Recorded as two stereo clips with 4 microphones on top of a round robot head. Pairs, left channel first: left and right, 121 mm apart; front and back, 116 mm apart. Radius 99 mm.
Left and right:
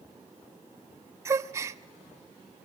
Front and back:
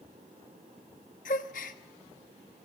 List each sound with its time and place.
1.2 s a gasp: 25° right, 0.6 m